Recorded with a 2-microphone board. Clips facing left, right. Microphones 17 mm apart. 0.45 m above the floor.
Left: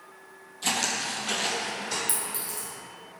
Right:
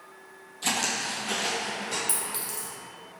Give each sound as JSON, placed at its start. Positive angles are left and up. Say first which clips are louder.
{"t": 0.6, "sound": "footsteps", "louder": "even", "side_deg": 0, "distance_m": 0.7}
{"t": 2.1, "sound": "a clink", "louder": "even", "side_deg": -35, "distance_m": 0.9}